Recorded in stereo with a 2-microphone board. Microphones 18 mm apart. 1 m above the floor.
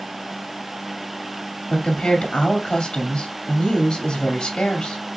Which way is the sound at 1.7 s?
65° left (ahead or behind).